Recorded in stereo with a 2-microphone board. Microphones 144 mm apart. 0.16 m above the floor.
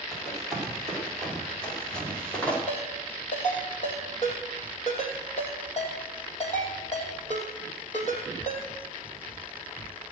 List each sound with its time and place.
0.1 s running footsteps: centre (ahead or behind), 8 m; by 2.6 s 10° left (ahead or behind), 7 m
2.7 s a ringtone: 50° left (ahead or behind), 5 m